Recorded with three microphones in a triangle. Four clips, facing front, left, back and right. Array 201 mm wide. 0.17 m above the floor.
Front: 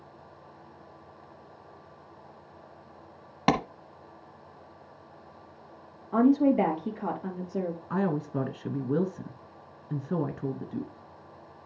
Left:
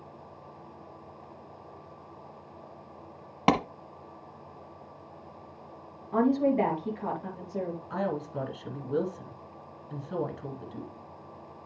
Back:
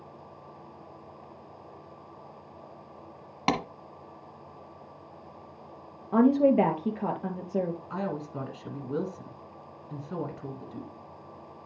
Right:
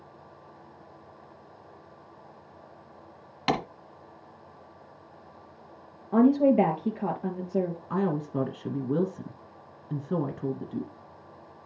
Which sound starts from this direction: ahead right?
A woman speaking, at 7.9 s.